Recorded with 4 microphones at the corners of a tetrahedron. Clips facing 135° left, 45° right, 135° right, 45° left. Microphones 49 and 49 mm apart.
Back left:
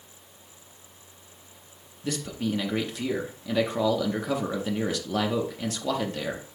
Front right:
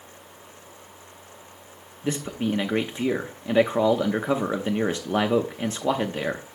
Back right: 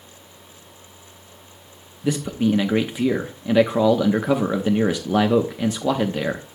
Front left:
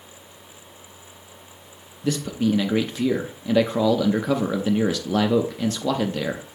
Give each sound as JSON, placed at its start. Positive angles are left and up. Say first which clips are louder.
{"t": 2.0, "sound": "a man speaking", "louder": "front right 3 dB, back right 2 dB", "azimuth_deg": -75, "distance_m": 0.6}